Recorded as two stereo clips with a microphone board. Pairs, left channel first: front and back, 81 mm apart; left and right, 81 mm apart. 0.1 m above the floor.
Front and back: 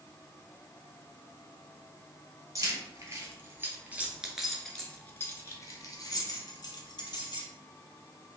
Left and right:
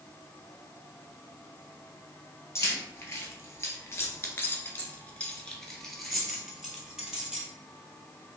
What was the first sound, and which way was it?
Keys jangling, 140° left.